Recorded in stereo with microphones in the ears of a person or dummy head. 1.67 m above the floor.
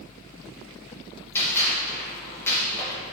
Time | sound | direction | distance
1.4 | a gunshot | 15° left (ahead or behind) | 3 m